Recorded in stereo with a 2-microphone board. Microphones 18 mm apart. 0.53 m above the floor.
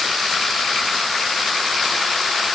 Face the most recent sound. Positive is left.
No sound to turn to.